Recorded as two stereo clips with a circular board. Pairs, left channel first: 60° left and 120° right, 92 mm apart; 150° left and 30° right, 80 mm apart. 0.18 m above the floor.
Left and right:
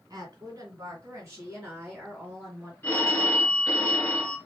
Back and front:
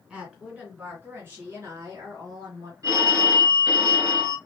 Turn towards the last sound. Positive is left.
turn(degrees=0)